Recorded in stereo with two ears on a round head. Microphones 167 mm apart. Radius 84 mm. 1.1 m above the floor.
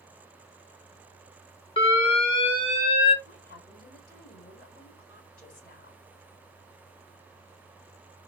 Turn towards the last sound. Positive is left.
turn(degrees=50)  # may be behind; listen again after turning